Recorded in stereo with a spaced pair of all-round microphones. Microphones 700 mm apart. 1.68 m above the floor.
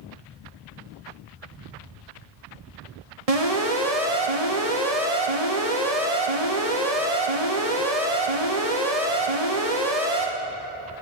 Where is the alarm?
55° right (ahead or behind), 2 m.